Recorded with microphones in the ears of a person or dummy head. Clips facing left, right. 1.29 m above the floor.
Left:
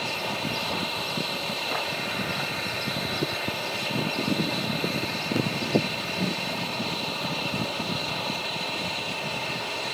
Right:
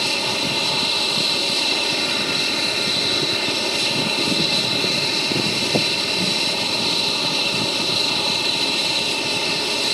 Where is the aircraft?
60° right (ahead or behind).